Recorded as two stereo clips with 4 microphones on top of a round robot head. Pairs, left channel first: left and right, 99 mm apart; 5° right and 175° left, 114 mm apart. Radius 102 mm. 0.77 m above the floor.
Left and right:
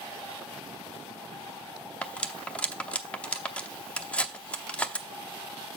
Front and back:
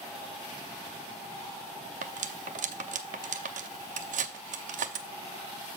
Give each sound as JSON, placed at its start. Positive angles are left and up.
{"t": 2.0, "sound": "cutlery clinking", "azimuth_deg": 170, "distance_m": 0.9}